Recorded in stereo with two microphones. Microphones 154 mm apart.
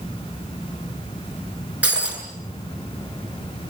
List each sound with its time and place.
1.8 s breaking glass: 10° right (ahead or behind), 7 m